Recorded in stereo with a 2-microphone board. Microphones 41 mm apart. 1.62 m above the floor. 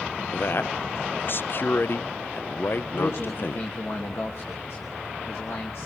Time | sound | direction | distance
0.3 | a man speaking | 55° left (ahead or behind) | 0.6 m
2.9 | a man speaking | 70° left (ahead or behind) | 3 m